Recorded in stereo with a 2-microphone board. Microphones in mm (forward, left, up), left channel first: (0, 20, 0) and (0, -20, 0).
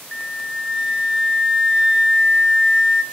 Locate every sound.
0.1 s a flute: 10° right (ahead or behind), 0.7 m